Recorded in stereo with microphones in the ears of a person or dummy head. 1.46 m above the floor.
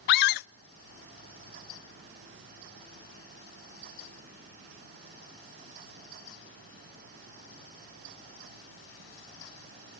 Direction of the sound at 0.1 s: 60° left (ahead or behind).